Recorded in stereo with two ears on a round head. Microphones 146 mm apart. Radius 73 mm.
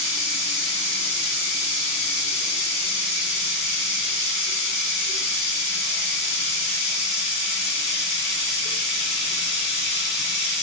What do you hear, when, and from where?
0.0 s running water: 40° left (ahead or behind), 1.8 m